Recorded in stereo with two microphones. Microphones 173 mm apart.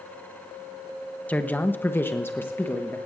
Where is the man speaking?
10° left (ahead or behind), 0.8 m.